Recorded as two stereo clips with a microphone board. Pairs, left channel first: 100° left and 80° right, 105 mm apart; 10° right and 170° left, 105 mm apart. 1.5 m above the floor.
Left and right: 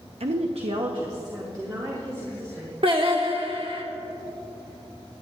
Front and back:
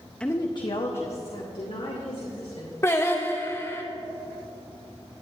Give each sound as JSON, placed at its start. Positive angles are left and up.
{"t": 0.2, "sound": "a woman speaking", "azimuth_deg": -95, "distance_m": 0.7}
{"t": 2.8, "sound": "singing", "azimuth_deg": -70, "distance_m": 1.5}